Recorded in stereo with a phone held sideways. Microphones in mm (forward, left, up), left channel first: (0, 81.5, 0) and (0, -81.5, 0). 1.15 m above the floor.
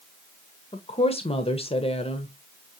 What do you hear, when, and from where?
0.7 s a woman speaking: 35° left (ahead or behind), 0.8 m